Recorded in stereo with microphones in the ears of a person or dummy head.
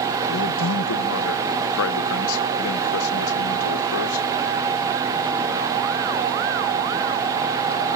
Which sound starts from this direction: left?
A man speaking, at 0.3 s.